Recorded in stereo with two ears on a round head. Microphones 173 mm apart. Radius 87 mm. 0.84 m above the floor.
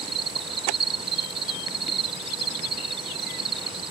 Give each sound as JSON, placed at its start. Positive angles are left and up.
{"t": 0.0, "sound": "an insect", "side_deg": -30}